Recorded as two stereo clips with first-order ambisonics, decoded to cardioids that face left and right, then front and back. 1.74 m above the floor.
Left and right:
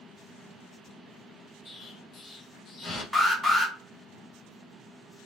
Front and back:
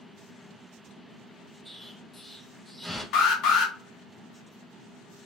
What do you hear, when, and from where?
1.6 s an explosion: 95° left, 0.9 m
3.1 s an alarm: 5° right, 0.6 m